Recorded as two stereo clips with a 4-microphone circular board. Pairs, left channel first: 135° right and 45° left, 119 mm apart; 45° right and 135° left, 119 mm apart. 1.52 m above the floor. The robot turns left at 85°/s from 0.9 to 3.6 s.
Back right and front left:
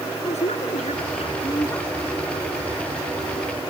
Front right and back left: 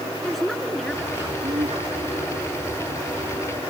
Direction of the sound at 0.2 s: 130° right.